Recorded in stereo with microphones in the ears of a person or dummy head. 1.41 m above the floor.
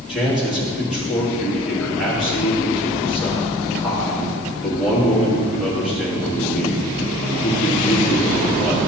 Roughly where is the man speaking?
Centre.